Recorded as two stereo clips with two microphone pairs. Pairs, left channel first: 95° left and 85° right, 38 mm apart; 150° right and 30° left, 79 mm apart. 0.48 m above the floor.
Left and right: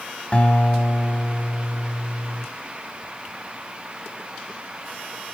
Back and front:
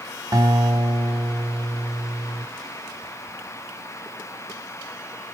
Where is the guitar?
50° left, 1.6 m.